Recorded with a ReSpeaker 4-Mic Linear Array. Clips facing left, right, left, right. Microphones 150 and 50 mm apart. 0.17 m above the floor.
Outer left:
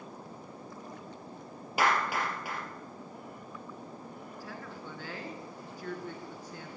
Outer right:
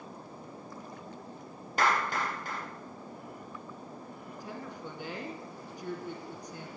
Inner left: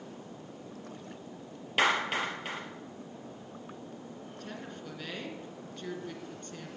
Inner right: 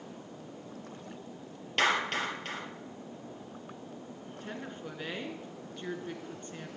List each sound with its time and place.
1.8 s a clap: 10° left (ahead or behind), 3 m
4.4 s a woman speaking: 20° right (ahead or behind), 2 m